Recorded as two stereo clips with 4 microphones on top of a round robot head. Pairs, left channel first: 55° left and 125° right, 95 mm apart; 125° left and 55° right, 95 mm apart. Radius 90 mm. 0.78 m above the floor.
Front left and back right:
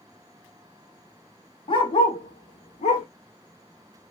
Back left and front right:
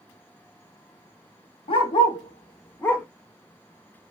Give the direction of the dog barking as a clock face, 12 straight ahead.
9 o'clock.